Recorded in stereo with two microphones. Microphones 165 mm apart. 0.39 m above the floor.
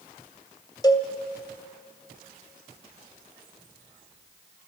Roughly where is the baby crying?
No baby crying in this recording.